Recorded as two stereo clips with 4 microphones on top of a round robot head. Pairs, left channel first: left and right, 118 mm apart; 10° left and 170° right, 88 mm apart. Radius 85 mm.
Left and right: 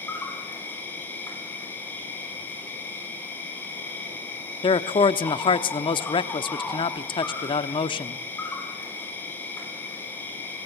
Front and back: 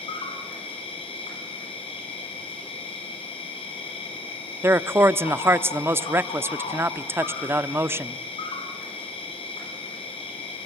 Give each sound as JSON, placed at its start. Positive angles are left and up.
{"t": 0.0, "sound": "an insect", "azimuth_deg": 15, "distance_m": 9.0}
{"t": 4.6, "sound": "a man speaking", "azimuth_deg": 130, "distance_m": 1.0}